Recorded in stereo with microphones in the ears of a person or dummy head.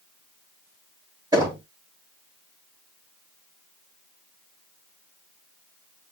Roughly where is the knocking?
Centre.